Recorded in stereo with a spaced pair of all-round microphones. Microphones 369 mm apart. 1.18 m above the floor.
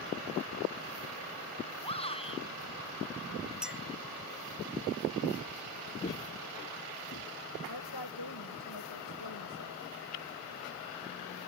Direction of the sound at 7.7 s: 80° left.